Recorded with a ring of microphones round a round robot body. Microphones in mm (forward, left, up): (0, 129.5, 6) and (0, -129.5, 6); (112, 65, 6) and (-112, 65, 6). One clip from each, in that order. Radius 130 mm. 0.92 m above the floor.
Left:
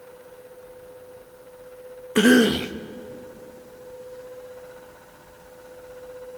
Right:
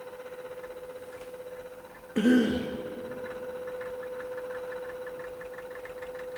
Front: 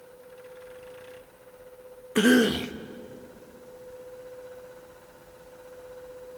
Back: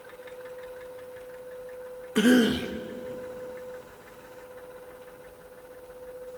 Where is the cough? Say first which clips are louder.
Left 8 dB, front 1 dB; 65° left, 0.9 m.